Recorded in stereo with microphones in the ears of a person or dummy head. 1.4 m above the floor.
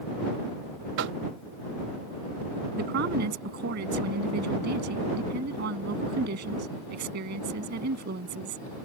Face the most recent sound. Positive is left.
turn(degrees=-60)  # may be behind; listen again after turning